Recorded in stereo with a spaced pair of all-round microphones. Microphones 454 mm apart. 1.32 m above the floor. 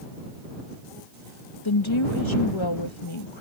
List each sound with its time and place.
1.6 s a woman speaking: 85° left